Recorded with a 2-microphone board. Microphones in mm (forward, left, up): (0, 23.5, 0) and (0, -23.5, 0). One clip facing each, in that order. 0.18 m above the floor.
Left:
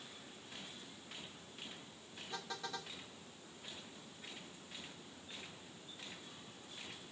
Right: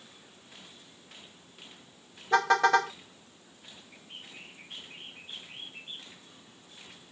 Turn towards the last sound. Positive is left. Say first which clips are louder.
# right 5 dB
turn(degrees=-80)